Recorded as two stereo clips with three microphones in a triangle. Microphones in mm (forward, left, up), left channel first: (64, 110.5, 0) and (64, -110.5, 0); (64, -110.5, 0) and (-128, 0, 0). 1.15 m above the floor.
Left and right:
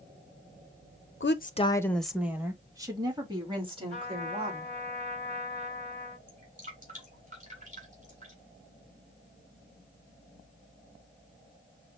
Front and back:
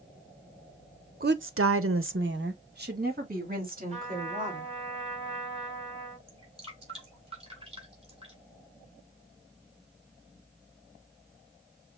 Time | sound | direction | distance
1.2 | a woman speaking | 110° left | 0.5 m
3.9 | a trumpet | 150° right | 3 m
6.3 | dripping | 145° right | 2 m